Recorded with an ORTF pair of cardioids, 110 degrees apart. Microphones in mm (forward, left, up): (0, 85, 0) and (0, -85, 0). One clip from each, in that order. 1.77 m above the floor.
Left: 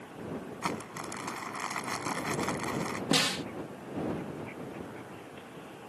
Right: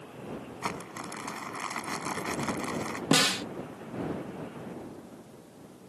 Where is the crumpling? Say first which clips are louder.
Even; straight ahead.